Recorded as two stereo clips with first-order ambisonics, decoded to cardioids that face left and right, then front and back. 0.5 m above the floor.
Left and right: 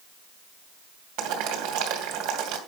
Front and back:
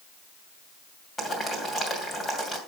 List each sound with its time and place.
1.2 s boiling: 80° right, 2.5 m